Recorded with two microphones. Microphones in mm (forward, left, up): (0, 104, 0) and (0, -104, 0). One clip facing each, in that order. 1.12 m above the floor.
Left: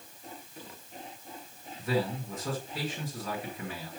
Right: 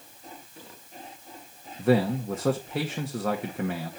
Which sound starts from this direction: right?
A man speaking, at 1.8 s.